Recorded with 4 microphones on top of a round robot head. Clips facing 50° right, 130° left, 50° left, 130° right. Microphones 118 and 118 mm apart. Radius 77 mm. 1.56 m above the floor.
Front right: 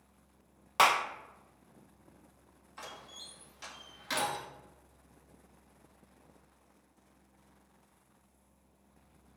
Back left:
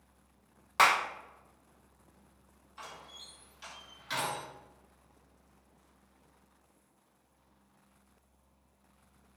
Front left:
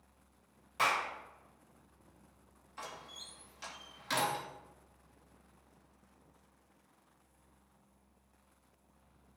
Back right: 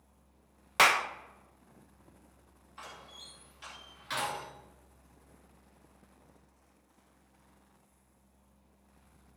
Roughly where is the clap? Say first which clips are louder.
Even, back right 6 dB; behind right.